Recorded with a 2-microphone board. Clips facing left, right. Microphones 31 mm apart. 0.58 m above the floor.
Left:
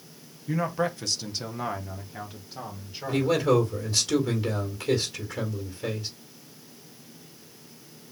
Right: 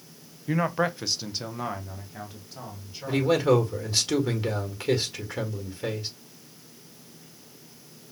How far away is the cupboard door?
I don't hear a cupboard door.